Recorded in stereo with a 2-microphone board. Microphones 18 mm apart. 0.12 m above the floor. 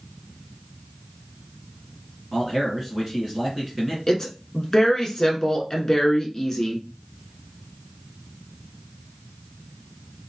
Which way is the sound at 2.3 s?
15° right (ahead or behind).